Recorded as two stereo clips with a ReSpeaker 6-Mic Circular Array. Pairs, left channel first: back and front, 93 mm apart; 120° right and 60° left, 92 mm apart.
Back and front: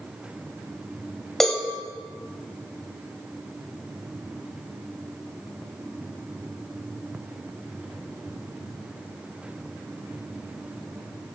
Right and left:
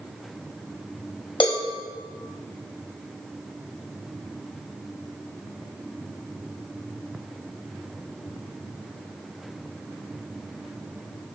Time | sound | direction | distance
1.4 | a cowbell | 95° right | 1.7 m